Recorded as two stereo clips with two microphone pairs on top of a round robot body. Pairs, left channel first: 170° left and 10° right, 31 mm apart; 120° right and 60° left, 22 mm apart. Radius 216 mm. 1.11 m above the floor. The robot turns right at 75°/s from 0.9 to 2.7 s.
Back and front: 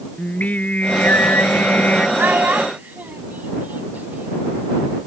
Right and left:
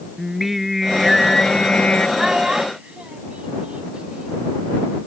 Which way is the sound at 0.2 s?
135° left.